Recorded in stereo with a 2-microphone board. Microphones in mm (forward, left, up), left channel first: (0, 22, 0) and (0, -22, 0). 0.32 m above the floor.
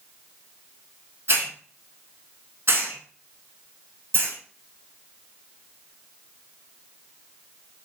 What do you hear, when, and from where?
1.3 s a hiss: 65° right (ahead or behind), 0.6 m